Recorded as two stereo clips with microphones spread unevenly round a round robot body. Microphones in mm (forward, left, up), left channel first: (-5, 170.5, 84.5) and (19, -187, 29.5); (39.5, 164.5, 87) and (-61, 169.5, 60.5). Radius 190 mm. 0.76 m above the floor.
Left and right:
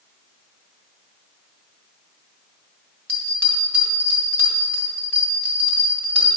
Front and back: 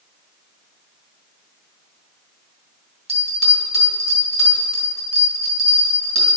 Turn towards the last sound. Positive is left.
turn(degrees=180)